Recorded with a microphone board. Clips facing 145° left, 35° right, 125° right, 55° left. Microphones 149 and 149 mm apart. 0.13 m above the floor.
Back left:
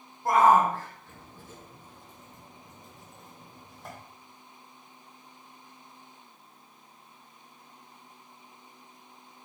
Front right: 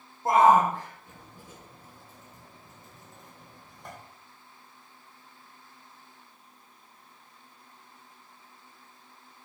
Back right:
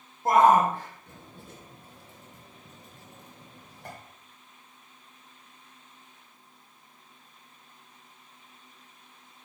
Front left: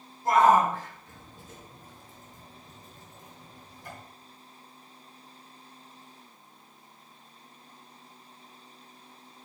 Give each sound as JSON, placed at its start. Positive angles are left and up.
{"t": 0.2, "sound": "a shout", "azimuth_deg": -100, "distance_m": 3.5}